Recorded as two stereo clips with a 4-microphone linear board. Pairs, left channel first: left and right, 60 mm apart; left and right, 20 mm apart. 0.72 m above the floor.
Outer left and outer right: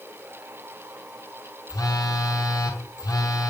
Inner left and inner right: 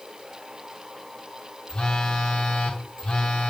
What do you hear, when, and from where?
1.7 s a phone buzzing: 80° left, 3 m